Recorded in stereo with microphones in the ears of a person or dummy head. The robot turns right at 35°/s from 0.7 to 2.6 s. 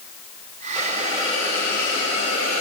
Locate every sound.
0.8 s a hiss: 175° right, 4 m; by 2.6 s 110° right, 4 m